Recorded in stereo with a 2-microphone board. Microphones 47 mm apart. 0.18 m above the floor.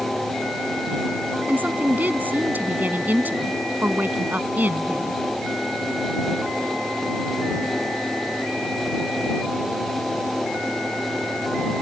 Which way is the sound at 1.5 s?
40° right (ahead or behind).